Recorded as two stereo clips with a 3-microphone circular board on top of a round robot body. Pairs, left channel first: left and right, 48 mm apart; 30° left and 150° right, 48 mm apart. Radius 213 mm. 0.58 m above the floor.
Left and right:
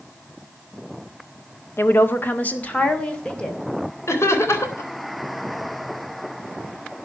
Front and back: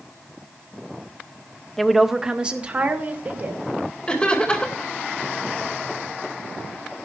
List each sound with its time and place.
1.8 s a woman speaking: 115° left, 1.7 m; by 3.6 s 165° left, 3.5 m
4.1 s laughter: 100° left, 3.5 m